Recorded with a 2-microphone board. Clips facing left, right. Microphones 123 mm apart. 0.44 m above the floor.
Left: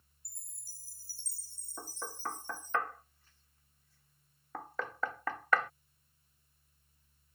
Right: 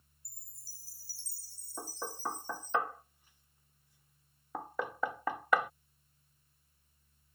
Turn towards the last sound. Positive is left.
turn(degrees=-15)  # may be behind; listen again after turning